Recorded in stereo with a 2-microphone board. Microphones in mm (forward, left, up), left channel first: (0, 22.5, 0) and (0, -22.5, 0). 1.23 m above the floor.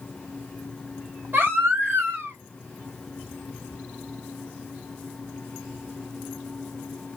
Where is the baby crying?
50° right (ahead or behind), 1.8 m.